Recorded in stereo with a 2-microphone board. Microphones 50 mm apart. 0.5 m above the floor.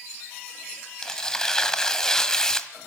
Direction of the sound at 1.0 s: 10° left (ahead or behind).